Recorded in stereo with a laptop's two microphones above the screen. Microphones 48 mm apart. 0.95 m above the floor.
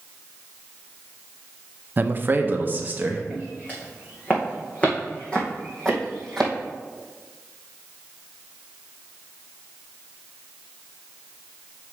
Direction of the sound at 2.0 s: 35° right (ahead or behind).